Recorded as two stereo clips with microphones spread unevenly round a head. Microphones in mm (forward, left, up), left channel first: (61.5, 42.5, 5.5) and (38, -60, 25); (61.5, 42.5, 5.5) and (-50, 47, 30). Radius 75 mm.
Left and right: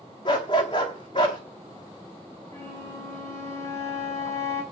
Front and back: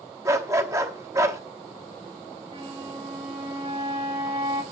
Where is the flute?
150° left, 1.9 m.